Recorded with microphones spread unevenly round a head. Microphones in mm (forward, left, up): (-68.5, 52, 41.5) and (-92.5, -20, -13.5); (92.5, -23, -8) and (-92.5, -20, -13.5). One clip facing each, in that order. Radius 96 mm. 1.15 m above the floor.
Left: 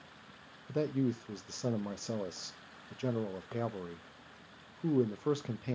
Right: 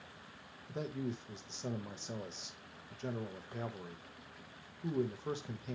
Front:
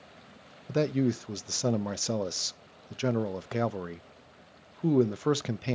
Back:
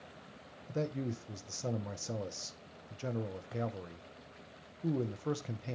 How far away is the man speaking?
About 0.6 m.